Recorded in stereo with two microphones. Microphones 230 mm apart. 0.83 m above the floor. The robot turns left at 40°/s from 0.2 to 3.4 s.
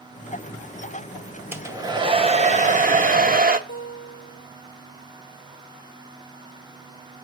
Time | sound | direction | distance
1.5 | a hair dryer | 15° right | 0.8 m
3.7 | a guitar | 60° left (ahead or behind) | 2.5 m